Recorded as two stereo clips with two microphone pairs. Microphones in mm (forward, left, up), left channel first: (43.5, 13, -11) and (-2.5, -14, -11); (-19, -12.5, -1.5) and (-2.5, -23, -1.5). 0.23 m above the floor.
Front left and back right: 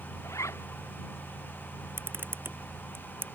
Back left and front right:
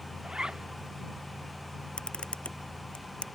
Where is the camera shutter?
170° left.